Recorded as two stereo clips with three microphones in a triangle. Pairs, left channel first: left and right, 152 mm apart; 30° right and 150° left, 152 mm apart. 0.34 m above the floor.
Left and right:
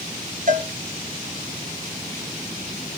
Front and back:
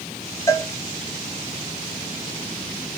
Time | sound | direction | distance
0.5 | a cowbell | 100° right | 3 m